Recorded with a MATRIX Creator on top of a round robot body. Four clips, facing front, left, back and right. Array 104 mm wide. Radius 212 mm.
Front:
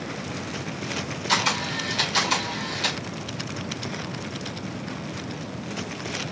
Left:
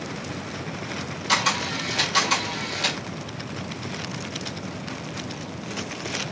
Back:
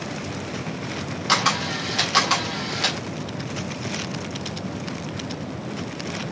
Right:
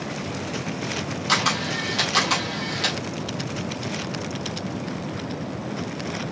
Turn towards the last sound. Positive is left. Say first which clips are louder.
# even, back 3 dB
turn(degrees=-165)